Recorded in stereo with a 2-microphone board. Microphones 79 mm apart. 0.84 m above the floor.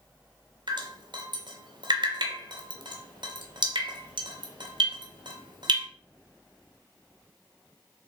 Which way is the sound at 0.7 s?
75° right (ahead or behind).